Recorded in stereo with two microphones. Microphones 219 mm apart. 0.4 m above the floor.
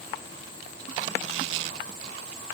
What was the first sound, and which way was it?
Only background noise.